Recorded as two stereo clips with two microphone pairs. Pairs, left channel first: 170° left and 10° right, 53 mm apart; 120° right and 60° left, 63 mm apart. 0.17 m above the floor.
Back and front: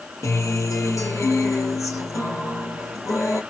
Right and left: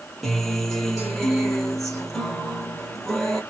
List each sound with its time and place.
0.2 s a guitar: 160° left, 2 m